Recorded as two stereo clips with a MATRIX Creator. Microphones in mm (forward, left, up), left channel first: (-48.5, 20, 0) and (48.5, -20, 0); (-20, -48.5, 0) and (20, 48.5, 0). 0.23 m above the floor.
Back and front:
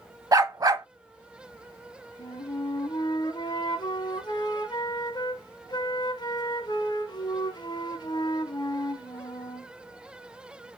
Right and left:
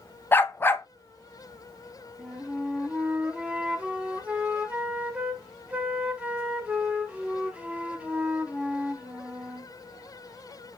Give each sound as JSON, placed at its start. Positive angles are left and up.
{"t": 0.3, "sound": "a dog barking", "azimuth_deg": -55, "distance_m": 0.5}
{"t": 2.2, "sound": "a flute", "azimuth_deg": 140, "distance_m": 0.6}